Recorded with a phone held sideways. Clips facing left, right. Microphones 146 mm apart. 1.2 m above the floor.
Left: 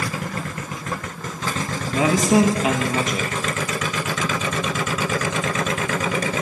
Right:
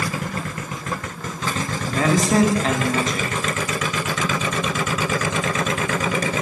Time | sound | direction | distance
1.9 | a man speaking | 10° left (ahead or behind) | 1.4 m